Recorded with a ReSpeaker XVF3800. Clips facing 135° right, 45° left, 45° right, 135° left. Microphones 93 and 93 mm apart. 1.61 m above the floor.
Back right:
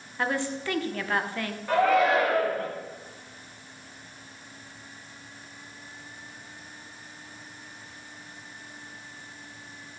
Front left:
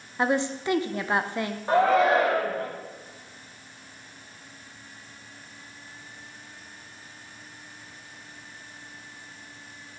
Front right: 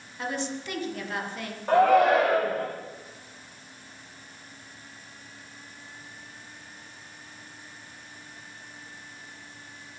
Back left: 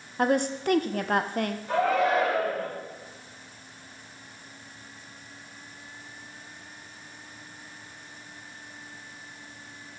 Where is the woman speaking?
110° left, 0.8 m.